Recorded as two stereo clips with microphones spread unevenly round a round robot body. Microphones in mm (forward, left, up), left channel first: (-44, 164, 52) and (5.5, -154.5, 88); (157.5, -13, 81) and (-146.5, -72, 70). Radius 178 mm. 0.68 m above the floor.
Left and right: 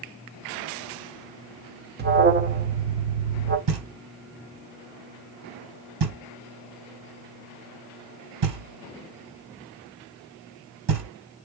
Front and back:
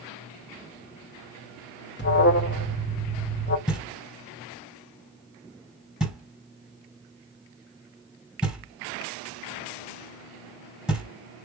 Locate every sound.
2.0 s an alarm: 30° right, 1.1 m
3.7 s knocking: 80° right, 2.5 m